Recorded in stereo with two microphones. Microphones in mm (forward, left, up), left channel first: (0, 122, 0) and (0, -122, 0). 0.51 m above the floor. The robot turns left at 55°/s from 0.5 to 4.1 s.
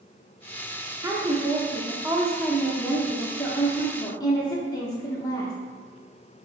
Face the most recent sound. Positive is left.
turn(degrees=15)  # may be behind; listen again after turning